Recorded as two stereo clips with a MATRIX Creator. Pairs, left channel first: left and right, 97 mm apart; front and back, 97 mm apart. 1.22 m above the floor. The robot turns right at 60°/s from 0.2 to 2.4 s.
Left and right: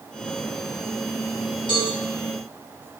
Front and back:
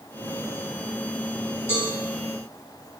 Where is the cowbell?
60° left, 3.5 m; by 1.9 s 75° left, 3.5 m.